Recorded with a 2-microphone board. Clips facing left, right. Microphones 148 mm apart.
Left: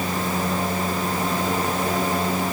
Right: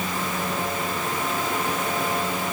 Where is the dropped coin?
I don't hear a dropped coin.